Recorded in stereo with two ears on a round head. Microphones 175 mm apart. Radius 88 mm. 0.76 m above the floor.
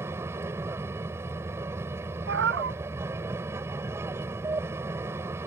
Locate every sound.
0.0 s an aircraft: 15° right (ahead or behind)
2.3 s a cat meowing: 70° right (ahead or behind)